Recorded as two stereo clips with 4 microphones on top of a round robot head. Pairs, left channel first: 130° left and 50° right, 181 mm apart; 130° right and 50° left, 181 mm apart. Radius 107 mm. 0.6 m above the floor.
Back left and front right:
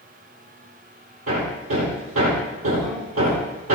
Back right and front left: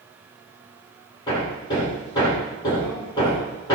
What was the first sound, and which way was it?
Hammering, 60° right.